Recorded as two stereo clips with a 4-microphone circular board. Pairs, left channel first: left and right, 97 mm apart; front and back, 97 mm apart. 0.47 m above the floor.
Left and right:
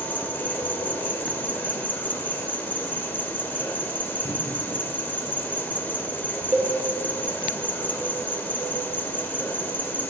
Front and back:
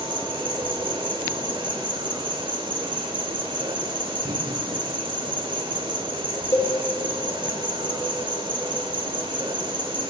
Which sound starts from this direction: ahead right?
A cowbell, at 6.5 s.